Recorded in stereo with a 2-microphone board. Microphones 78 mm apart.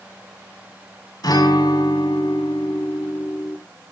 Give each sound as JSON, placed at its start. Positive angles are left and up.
{"t": 1.2, "sound": "a guitar", "side_deg": 50, "distance_m": 7.5}